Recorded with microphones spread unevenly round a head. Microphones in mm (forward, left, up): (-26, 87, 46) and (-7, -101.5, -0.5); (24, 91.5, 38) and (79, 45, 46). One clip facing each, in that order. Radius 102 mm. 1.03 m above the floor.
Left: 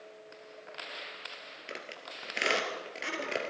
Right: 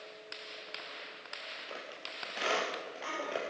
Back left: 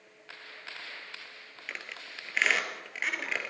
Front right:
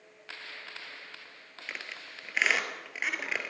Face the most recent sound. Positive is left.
turn(degrees=45)